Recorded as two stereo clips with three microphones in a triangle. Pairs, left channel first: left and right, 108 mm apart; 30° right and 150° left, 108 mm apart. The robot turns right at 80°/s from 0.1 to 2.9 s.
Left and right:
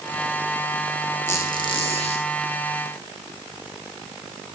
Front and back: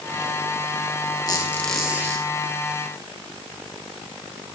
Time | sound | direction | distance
1.3 | a squeak | 20° left | 1.4 m